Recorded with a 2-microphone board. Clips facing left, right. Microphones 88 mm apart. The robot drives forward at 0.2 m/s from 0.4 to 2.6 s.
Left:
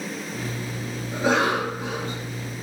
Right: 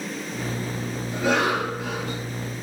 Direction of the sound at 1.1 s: 30° left (ahead or behind).